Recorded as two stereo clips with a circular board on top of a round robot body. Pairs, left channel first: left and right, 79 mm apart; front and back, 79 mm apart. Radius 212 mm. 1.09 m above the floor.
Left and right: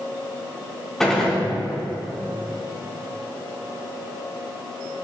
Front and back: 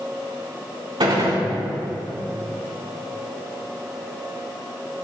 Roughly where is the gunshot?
Behind.